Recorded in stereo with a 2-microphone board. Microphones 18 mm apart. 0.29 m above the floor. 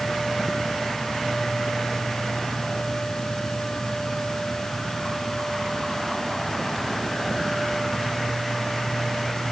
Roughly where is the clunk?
I don't hear a clunk.